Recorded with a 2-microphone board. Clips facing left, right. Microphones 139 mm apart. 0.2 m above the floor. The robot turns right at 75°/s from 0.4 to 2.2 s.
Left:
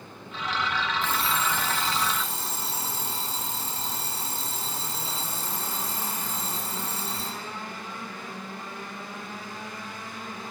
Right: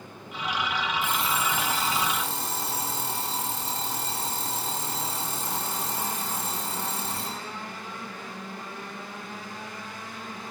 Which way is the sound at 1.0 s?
165° left.